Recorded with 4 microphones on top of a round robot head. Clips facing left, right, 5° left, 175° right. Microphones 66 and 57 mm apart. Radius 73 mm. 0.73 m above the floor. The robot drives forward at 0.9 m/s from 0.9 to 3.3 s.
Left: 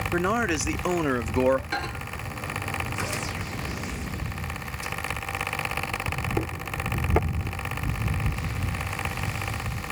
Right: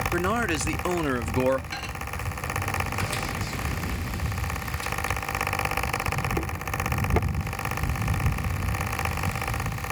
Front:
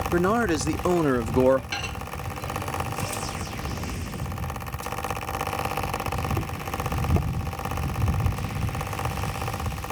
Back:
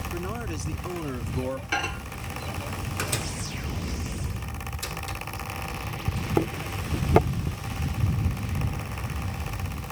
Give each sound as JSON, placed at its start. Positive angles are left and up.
{"t": 0.1, "sound": "a man speaking", "azimuth_deg": 5}
{"t": 1.7, "sound": "a microwave", "azimuth_deg": 125}